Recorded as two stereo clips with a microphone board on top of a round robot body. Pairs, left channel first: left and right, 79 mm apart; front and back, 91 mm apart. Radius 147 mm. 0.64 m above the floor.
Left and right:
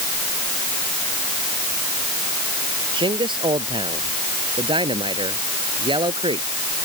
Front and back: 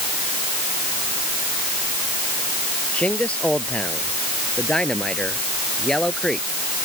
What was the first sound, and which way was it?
A man speaking, 80° right.